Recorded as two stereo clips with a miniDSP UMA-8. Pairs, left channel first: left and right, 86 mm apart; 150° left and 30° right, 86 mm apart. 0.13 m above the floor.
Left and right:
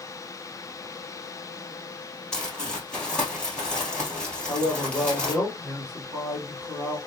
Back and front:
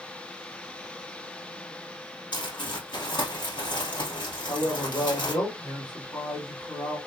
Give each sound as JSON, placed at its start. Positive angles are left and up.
{"t": 2.3, "sound": "crumpling", "azimuth_deg": 170, "distance_m": 1.9}
{"t": 4.5, "sound": "a man speaking", "azimuth_deg": 165, "distance_m": 2.5}